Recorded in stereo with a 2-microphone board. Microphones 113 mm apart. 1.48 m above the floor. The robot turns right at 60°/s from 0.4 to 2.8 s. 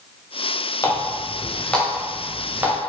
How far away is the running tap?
About 0.6 m.